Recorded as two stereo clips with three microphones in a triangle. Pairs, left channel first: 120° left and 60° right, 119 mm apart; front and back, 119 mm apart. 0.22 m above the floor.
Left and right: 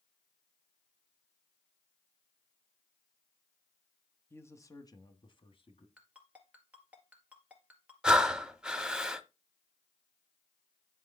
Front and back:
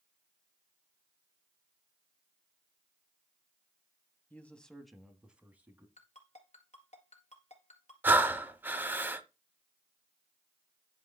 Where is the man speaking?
65° left, 1.1 m; by 5.9 s 110° left, 1.5 m.